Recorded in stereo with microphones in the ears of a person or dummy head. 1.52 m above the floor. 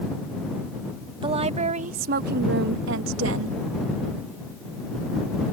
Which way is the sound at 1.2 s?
25° right (ahead or behind).